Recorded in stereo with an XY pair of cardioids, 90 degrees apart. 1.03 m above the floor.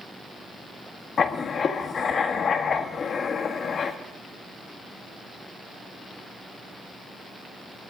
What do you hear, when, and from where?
1.2 s writing: 60° left, 1.5 m